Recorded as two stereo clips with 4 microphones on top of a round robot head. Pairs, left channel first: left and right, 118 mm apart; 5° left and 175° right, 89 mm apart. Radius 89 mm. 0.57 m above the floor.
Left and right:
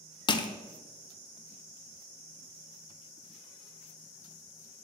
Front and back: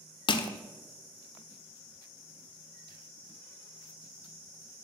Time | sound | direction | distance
0.3 | crushing | 35° left | 0.6 m